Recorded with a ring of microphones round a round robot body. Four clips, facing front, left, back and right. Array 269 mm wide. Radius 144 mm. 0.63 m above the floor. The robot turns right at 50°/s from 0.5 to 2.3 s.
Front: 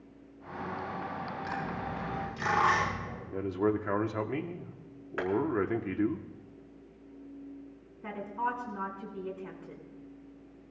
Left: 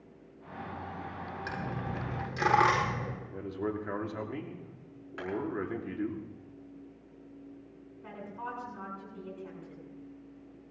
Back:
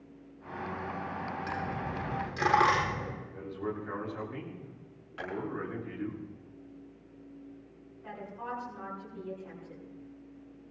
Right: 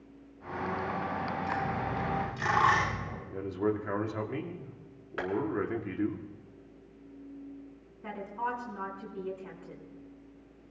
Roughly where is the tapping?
Ahead right.